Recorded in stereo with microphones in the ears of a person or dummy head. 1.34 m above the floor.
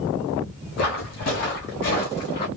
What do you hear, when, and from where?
0.8 s footsteps: 50° left (ahead or behind), 2.5 m; by 2.5 s 40° left (ahead or behind), 3 m